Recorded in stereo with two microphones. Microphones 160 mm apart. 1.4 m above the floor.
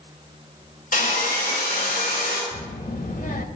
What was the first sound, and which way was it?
Sawing, 65° left (ahead or behind).